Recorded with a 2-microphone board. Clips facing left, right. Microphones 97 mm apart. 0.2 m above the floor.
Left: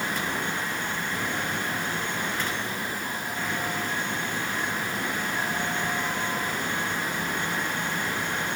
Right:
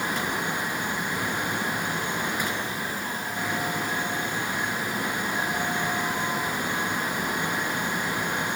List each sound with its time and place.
Only background noise.